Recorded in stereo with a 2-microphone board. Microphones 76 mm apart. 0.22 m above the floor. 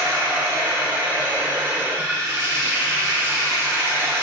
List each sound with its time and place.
0.0 s running water: 35° right (ahead or behind), 1.2 m